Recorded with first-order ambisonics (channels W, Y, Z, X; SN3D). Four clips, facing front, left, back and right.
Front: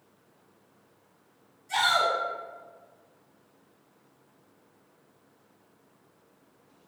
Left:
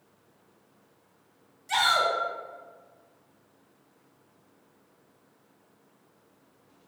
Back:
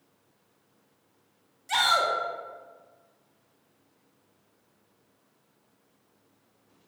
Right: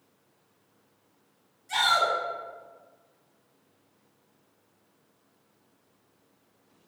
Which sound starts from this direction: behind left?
A shout, at 1.7 s.